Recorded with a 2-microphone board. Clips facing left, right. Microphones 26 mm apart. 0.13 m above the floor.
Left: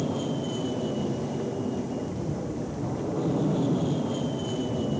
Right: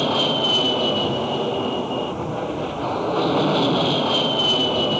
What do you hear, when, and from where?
0.0 s an aircraft: 70° right (ahead or behind)